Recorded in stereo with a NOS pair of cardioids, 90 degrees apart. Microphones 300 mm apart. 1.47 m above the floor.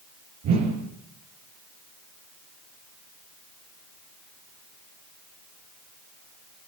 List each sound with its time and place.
0.4 s a whoosh: 65° right, 7.5 m